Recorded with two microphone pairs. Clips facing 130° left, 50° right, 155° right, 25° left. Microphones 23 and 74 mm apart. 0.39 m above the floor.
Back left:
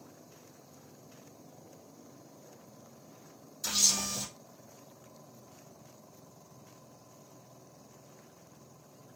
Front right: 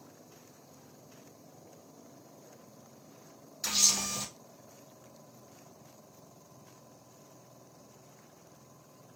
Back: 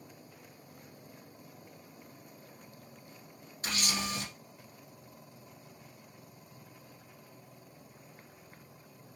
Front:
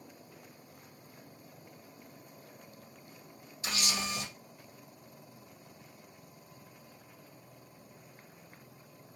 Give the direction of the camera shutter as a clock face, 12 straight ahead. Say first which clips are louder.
Front right 1 dB, even; 4 o'clock.